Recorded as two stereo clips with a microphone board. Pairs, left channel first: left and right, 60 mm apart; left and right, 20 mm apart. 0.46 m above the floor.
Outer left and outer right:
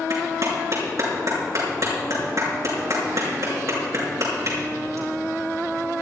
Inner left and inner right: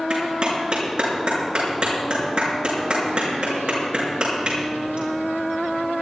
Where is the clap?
55° right (ahead or behind), 6 m.